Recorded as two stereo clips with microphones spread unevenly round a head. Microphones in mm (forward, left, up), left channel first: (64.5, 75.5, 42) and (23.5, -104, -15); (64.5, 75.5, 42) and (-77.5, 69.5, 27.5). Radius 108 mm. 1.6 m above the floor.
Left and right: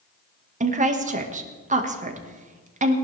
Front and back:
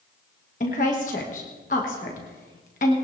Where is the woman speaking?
50° right, 1.9 m.